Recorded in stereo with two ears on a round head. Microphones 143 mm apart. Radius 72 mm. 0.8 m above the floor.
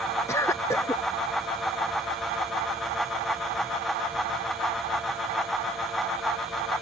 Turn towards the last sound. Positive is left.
turn(degrees=20)  # may be behind; listen again after turning